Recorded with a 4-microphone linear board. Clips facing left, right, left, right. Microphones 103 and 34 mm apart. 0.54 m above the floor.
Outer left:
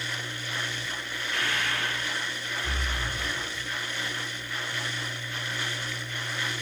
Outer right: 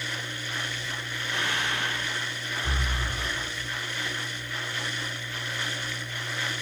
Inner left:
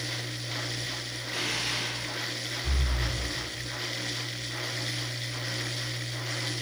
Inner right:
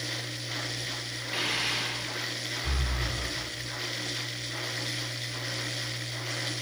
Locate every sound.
1.3 s breathing: 25° right (ahead or behind), 0.9 m